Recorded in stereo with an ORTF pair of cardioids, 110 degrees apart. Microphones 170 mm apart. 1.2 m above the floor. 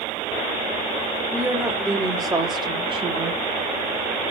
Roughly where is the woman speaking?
Ahead.